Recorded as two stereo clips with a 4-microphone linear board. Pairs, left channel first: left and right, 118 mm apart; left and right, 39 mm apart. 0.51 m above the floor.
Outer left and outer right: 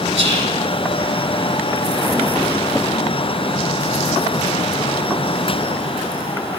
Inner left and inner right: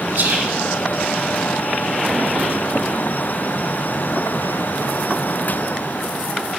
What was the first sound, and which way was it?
Whispering, 55° right (ahead or behind).